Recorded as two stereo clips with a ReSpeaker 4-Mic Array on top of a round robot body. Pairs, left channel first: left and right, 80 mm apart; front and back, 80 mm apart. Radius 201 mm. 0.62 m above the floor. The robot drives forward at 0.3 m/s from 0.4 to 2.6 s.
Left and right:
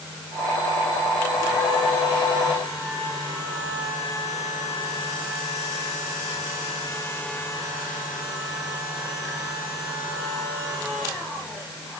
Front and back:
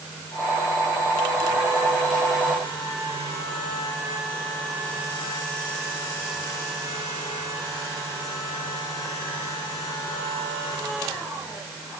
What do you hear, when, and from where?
Only background noise.